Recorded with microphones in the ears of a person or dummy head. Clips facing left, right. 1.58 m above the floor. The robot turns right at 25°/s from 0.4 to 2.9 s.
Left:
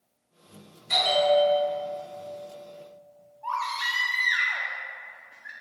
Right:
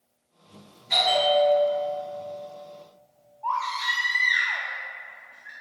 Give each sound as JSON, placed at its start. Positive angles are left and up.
{"t": 0.9, "sound": "a bell", "side_deg": 55, "distance_m": 1.9}
{"t": 3.4, "sound": "a baby crying", "side_deg": 25, "distance_m": 0.5}